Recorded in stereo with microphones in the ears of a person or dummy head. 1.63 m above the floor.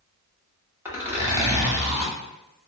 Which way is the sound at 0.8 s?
15° right (ahead or behind).